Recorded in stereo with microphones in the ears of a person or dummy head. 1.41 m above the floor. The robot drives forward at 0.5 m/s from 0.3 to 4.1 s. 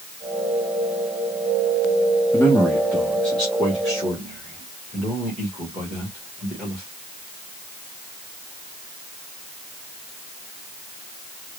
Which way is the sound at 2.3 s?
20° left (ahead or behind).